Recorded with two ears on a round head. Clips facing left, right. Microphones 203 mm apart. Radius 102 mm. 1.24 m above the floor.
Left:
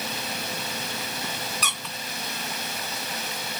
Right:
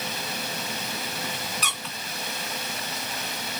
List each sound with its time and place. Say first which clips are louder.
1.6 s a squeak: even; 75° left (ahead or behind), 0.8 m